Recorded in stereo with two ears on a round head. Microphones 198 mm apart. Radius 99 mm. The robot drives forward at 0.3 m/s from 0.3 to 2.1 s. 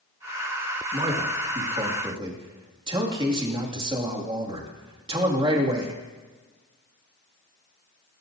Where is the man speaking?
25° right (ahead or behind), 1.9 m; by 5.9 s 20° right (ahead or behind), 2.5 m.